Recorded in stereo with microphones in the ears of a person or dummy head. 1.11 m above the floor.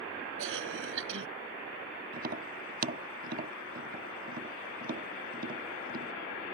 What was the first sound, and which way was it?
A cough, 80° right.